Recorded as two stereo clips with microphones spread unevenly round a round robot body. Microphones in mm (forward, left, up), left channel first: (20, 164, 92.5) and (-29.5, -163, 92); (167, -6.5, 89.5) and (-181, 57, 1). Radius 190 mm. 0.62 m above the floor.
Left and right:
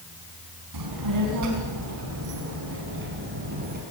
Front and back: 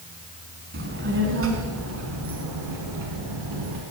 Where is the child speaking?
125° right, 4 m; by 3.8 s 165° right, 4.5 m.